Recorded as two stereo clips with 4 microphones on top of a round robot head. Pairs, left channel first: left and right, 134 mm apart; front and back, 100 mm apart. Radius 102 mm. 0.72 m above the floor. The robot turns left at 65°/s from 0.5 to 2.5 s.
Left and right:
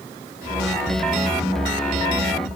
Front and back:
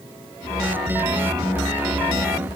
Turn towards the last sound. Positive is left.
No sound to turn to.